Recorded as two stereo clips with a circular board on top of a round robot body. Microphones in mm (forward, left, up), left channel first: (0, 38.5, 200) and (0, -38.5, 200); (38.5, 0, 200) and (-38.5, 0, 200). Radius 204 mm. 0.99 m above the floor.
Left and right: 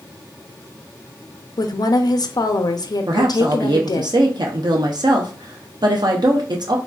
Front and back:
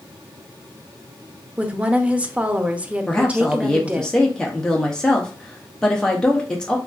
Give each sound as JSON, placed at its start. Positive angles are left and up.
{"t": 1.6, "sound": "a woman speaking", "azimuth_deg": 110, "distance_m": 0.6}
{"t": 3.1, "sound": "a woman speaking", "azimuth_deg": -80, "distance_m": 0.6}